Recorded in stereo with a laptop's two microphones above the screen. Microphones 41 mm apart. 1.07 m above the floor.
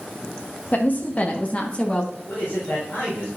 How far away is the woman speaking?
About 1.1 m.